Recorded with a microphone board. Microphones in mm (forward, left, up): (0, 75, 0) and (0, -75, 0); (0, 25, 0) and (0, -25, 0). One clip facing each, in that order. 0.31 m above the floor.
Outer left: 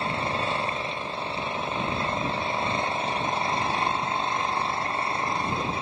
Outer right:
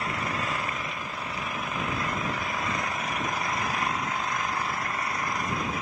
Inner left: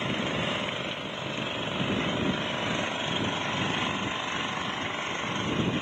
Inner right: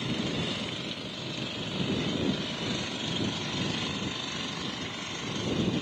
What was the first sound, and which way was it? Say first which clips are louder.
An engine running: outer left 3 dB, inner left 3 dB; 30° left (ahead or behind).